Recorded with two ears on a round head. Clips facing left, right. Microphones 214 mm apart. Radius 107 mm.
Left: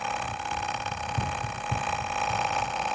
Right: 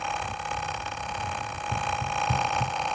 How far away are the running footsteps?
About 1.0 m.